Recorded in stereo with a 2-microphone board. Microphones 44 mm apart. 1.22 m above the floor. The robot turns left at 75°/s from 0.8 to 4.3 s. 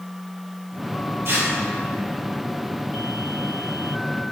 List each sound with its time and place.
1.2 s tearing paper: 80° right, 2.5 m; by 1.5 s 60° right (ahead or behind), 2.5 m